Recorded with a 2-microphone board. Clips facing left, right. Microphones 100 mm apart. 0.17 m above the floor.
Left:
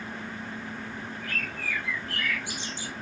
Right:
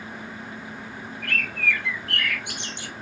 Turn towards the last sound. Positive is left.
turn(degrees=-65)  # may be behind; listen again after turning